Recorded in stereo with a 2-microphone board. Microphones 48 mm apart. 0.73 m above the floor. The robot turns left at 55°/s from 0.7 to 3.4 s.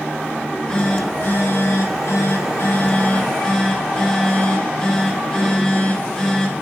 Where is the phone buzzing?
160° left, 2.0 m; by 6.6 s 10° left, 2.0 m.